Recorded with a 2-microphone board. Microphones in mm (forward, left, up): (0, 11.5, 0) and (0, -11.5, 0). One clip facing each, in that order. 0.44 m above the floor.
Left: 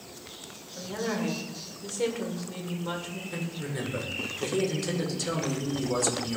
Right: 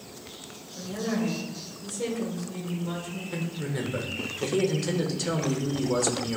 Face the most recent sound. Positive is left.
turn(degrees=-10)  # may be behind; listen again after turning